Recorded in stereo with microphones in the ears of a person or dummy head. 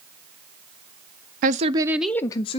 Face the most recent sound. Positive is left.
turn(degrees=35)  # may be behind; listen again after turning